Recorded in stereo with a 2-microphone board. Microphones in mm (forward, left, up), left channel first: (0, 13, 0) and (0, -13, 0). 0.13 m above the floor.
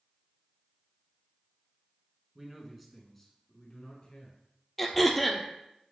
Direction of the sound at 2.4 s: 20° right (ahead or behind).